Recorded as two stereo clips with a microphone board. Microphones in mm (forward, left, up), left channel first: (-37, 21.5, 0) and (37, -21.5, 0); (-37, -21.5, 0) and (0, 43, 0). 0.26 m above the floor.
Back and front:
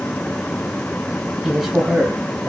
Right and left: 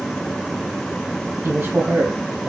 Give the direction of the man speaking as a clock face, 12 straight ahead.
10 o'clock.